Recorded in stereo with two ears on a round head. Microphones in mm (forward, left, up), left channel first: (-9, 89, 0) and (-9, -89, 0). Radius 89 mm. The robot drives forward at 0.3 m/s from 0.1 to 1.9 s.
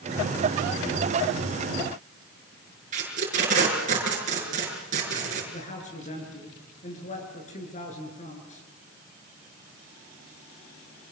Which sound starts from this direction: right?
Tape being pulled, at 2.9 s.